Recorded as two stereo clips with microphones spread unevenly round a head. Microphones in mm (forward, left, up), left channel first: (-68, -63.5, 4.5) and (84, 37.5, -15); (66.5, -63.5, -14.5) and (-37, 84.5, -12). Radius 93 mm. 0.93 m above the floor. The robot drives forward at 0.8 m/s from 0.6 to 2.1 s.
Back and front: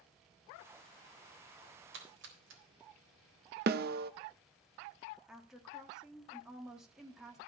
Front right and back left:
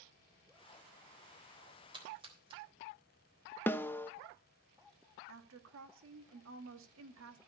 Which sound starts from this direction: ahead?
A snare drum, at 3.7 s.